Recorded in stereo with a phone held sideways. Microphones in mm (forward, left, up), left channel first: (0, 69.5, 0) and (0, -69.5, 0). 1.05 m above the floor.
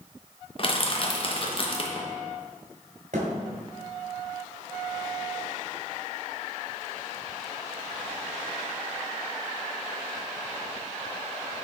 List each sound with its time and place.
0.6 s crushing: 40° left (ahead or behind), 0.8 m
3.1 s a thud: 70° right (ahead or behind), 2 m